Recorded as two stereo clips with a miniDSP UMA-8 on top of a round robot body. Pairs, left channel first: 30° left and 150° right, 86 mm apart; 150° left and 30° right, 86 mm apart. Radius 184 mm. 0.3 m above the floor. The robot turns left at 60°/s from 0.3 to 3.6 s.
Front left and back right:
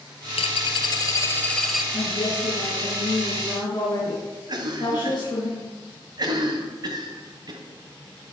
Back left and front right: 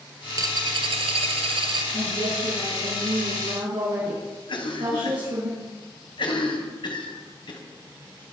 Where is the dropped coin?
25° left, 0.7 m; by 1.8 s 65° right, 0.7 m.